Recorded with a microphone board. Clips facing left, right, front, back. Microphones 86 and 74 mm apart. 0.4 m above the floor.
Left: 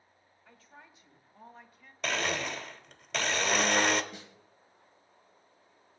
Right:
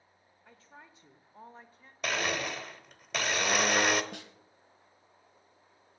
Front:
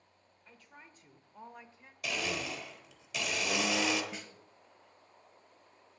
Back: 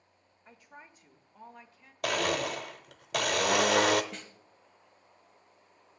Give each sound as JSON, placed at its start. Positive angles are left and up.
{"t": 0.5, "sound": "a woman speaking", "azimuth_deg": -135, "distance_m": 1.2}
{"t": 2.0, "sound": "a blender", "azimuth_deg": -175, "distance_m": 0.8}
{"t": 4.1, "sound": "a snare drum", "azimuth_deg": -85, "distance_m": 1.3}